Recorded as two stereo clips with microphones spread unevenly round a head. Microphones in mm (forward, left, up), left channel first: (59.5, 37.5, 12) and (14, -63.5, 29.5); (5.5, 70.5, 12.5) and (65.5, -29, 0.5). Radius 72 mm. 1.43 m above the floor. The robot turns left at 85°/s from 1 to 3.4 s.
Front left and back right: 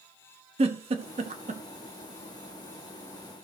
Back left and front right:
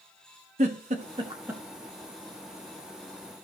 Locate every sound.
0.6 s a giggle: 100° right, 1.1 m; by 1.6 s 155° right, 1.1 m